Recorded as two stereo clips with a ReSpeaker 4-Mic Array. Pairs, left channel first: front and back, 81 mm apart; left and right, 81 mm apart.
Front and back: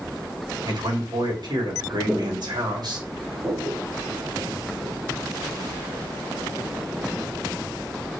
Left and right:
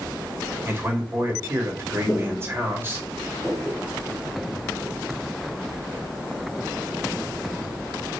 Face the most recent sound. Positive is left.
turn(degrees=-155)